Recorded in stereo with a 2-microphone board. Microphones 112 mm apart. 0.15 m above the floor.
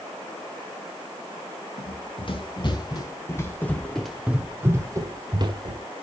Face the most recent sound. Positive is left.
turn(degrees=-50)  # may be behind; listen again after turning